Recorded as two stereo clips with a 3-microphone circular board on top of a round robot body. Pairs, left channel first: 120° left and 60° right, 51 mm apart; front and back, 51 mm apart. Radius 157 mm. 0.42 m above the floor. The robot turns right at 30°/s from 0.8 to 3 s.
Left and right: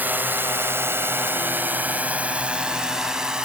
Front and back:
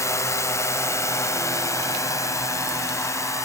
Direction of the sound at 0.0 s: 5° right.